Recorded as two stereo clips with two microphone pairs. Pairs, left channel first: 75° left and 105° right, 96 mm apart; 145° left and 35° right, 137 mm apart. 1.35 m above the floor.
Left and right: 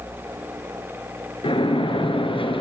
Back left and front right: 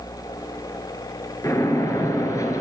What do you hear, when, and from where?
1.4 s a splash: 80° left, 3 m